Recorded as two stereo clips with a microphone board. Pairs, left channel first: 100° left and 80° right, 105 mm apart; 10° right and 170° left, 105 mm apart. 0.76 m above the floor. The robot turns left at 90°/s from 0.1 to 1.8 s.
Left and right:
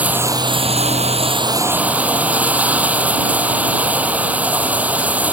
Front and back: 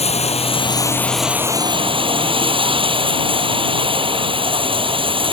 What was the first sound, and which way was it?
Running water, 5° right.